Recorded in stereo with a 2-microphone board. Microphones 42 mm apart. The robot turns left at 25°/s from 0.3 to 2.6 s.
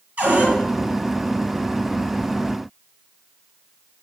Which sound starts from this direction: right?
A cupboard door, at 0.2 s.